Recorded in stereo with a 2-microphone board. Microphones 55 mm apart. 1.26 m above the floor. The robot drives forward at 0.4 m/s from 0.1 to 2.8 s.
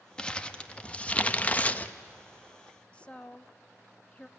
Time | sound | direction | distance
0.2 | crumpling | 15° left (ahead or behind) | 0.9 m
2.9 | a woman speaking | 20° left (ahead or behind) | 0.6 m